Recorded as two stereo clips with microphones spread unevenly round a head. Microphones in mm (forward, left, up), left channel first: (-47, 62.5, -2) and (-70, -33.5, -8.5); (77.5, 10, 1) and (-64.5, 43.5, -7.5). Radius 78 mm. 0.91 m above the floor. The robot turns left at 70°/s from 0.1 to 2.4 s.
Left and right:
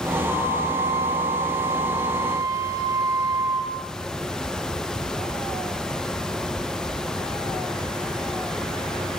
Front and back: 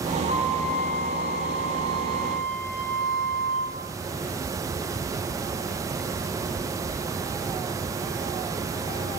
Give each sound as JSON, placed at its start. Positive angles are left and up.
{"t": 0.3, "sound": "a flute", "azimuth_deg": -5, "distance_m": 3.5}